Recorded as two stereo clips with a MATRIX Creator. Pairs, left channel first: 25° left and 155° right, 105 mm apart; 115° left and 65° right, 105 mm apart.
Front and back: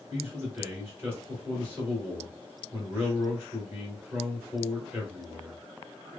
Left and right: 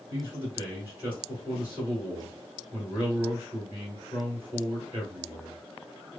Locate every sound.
0.1 s a man speaking: 115° right, 1.4 m